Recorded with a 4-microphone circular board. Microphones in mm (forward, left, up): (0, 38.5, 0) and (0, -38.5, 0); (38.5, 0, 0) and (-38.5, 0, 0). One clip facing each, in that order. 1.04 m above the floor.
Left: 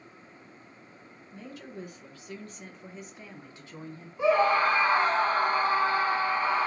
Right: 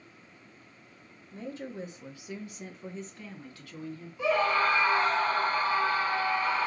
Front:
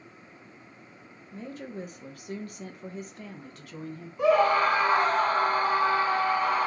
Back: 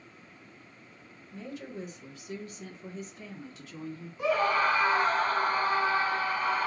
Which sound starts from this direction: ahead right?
A woman speaking, at 1.3 s.